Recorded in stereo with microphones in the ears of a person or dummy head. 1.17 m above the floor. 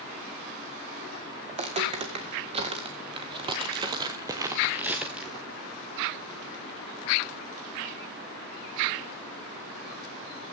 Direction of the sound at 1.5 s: 30° right (ahead or behind).